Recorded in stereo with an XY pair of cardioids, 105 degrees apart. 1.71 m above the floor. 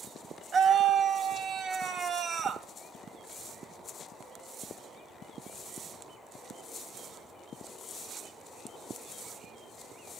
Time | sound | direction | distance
0.5 | a scream | 55° right | 1.1 m